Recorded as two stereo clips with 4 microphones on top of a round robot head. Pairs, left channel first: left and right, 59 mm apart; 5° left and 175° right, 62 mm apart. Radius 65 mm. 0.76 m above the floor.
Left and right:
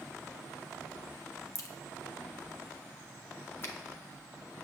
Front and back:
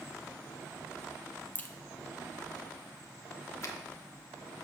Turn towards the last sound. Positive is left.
turn(degrees=45)